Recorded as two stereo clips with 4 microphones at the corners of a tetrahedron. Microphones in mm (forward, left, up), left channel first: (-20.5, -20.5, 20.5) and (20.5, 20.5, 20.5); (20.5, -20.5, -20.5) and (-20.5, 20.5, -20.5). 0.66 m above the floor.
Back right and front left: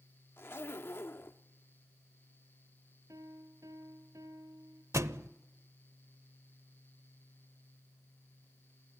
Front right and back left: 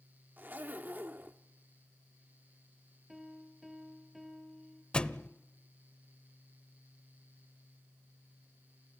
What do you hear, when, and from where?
0.4 s a zipper: 175° right, 0.9 m
3.1 s a piano: 45° left, 2 m
4.9 s a thud: 25° left, 0.7 m